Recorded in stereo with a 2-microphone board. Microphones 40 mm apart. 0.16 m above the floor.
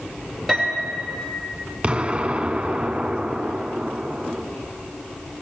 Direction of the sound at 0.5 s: Centre (ahead or behind).